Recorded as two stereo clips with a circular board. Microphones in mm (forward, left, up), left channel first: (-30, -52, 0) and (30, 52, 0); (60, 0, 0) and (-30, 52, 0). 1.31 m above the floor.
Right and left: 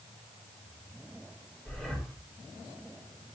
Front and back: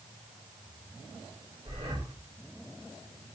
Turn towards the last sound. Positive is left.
turn(degrees=155)